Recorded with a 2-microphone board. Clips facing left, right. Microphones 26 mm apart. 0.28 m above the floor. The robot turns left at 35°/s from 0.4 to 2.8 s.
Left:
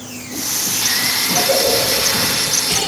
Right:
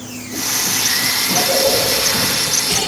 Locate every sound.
1.3 s a cough: 70° left (ahead or behind), 8 m; by 2.8 s 20° left (ahead or behind), 8 m